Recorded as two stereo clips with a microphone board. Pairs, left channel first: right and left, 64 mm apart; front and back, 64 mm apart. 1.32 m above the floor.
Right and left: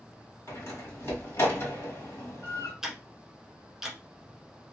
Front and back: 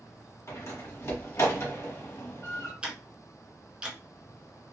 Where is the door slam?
40° right, 1.5 m.